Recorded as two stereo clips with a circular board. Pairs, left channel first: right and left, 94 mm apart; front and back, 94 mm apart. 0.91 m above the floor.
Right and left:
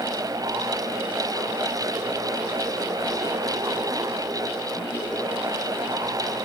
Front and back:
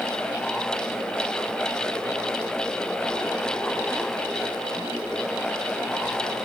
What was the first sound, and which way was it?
Only background noise.